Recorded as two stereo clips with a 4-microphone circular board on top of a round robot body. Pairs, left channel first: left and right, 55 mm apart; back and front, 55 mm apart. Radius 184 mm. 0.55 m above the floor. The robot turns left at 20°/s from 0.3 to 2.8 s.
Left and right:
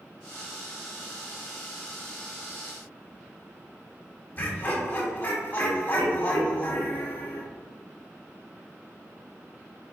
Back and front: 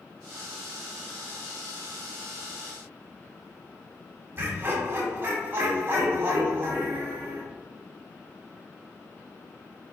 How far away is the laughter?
About 1.3 m.